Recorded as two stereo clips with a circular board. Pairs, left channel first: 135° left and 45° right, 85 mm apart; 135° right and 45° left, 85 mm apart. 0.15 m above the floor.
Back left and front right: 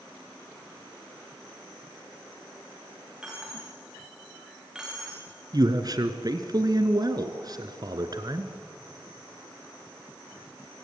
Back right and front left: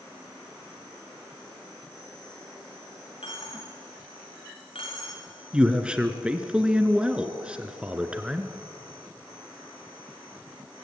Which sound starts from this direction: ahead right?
A man speaking, at 5.5 s.